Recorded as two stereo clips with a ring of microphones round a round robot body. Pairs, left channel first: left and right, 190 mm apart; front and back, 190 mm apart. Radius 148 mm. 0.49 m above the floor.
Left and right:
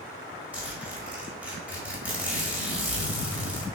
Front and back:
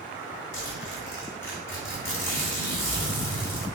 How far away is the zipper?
About 1.7 m.